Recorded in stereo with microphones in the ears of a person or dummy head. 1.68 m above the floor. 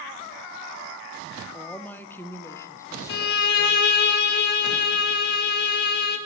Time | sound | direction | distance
1.5 | a woman speaking | 5° left (ahead or behind) | 0.9 m
3.1 | a violin | 60° left (ahead or behind) | 1.4 m